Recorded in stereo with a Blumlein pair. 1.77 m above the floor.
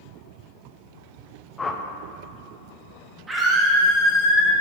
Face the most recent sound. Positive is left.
turn(degrees=-10)